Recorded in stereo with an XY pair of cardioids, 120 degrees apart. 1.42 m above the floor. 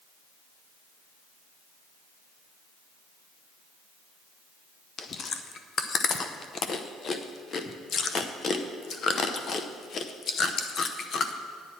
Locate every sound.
5.0 s chewing: 40° left, 0.7 m